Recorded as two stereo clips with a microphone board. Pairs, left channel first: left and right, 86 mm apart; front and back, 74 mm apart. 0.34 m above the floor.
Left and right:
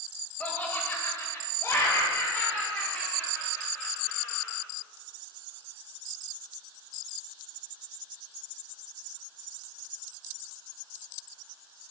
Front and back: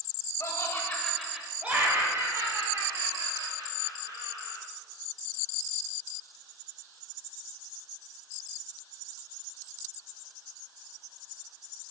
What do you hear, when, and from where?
0.4 s laughter: 25° left, 1.4 m; by 4.6 s 160° left, 4 m